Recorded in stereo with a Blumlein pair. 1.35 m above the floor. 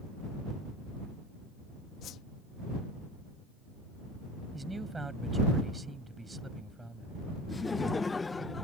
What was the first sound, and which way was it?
A whoosh, 30° left.